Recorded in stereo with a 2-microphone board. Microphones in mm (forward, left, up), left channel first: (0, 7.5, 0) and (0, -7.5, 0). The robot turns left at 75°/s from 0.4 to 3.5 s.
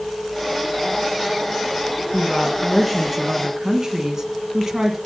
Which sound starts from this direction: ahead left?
A woman speaking, at 2.1 s.